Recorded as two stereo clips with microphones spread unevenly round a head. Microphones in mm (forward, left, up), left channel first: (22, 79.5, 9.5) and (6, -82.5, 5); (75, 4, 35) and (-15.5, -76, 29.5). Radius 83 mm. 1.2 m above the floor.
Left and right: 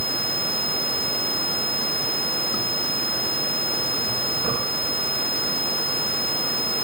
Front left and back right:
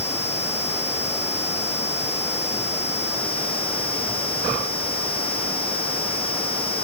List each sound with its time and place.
Only background noise.